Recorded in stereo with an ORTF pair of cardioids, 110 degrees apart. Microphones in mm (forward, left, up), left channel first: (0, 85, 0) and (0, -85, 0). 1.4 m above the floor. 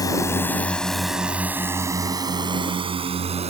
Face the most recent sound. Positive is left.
turn(degrees=-40)